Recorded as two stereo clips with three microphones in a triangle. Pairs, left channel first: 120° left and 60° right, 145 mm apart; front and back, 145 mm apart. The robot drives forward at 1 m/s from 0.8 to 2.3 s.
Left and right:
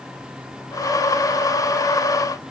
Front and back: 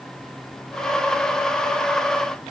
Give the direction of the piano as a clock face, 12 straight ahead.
No piano in this recording.